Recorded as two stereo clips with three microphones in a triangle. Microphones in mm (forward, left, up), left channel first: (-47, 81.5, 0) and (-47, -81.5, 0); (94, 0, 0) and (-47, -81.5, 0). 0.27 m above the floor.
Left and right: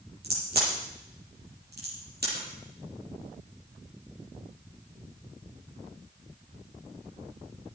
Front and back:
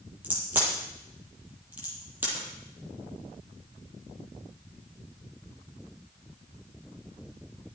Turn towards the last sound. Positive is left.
turn(degrees=-70)